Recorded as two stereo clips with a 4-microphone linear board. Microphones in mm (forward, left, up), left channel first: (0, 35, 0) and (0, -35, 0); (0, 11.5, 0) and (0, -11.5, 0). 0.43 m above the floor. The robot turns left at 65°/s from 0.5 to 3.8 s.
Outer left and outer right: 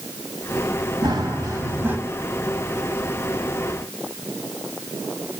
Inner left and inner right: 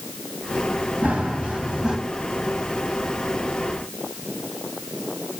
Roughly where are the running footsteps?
Right.